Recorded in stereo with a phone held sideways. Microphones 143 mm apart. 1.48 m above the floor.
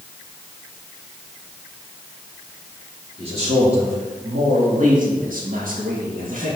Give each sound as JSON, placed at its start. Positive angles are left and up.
{"t": 3.2, "sound": "a man speaking", "side_deg": -45, "distance_m": 3.0}